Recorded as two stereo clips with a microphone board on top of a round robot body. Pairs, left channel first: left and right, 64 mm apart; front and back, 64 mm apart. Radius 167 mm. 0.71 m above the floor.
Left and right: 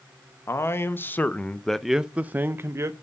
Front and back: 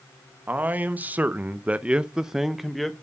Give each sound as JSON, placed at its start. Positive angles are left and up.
{"t": 0.5, "sound": "a man speaking", "azimuth_deg": 125, "distance_m": 1.3}